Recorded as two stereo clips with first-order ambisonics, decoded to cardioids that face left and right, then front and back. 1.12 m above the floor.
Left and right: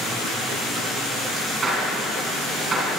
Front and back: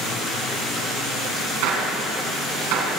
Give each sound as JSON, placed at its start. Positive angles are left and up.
{"t": 1.6, "sound": "a gunshot", "azimuth_deg": -165, "distance_m": 3.5}